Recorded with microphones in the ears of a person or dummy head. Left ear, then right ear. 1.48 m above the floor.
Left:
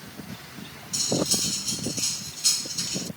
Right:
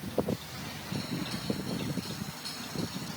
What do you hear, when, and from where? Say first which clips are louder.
0.9 s cutlery clinking: left 14 dB; 75° left (ahead or behind)